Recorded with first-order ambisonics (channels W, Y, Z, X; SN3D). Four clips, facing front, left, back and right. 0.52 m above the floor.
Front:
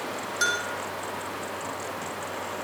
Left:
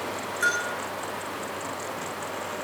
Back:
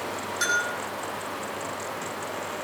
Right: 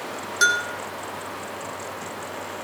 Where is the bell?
85° right, 4.5 m.